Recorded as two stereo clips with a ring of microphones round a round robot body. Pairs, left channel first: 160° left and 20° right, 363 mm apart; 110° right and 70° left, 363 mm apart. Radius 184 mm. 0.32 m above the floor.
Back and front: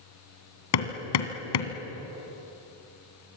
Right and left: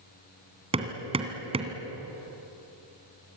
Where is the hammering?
140° left, 2.5 m.